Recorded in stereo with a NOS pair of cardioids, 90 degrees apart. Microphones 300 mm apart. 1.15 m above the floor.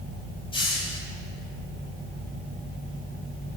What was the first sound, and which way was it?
A hiss, 15° left.